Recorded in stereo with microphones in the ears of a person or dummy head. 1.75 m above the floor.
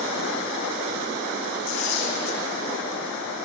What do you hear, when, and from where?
1.7 s tearing paper: 80° left, 7.5 m